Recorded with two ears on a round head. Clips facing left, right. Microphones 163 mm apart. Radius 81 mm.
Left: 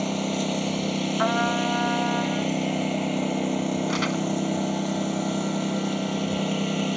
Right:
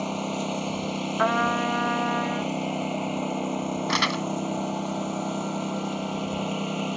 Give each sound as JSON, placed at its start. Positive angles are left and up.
{"t": 0.0, "sound": "a lawn mower", "side_deg": 15}
{"t": 1.2, "sound": "a trumpet", "side_deg": -45}
{"t": 3.9, "sound": "crumpling", "side_deg": -70}